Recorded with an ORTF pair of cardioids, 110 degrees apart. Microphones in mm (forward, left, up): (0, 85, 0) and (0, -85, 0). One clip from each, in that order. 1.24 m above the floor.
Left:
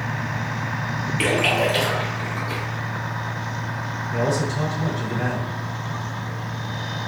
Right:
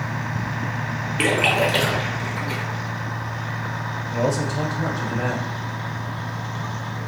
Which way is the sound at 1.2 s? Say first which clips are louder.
Right 1 dB; 20° right.